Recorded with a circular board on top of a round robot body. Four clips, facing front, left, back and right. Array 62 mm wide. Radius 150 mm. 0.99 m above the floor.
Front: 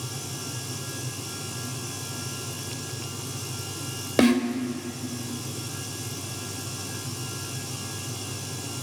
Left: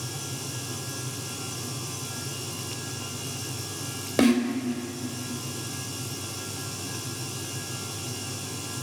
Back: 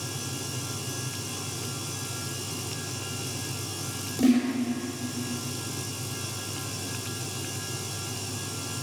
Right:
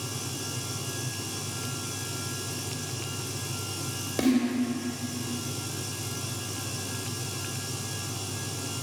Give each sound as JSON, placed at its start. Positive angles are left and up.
{"t": 4.2, "sound": "a snare drum", "azimuth_deg": 25, "distance_m": 3.5}